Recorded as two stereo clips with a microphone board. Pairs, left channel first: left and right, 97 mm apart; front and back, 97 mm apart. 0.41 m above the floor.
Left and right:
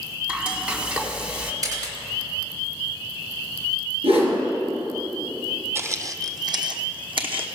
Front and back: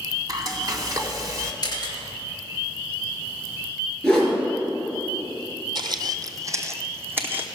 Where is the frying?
160° right, 1.3 m.